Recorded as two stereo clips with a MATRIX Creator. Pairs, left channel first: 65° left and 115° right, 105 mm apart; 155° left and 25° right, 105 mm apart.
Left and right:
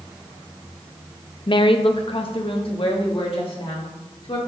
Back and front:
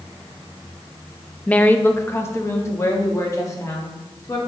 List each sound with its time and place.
1.5 s a woman speaking: 85° left, 0.5 m; by 4.4 s 100° left, 2 m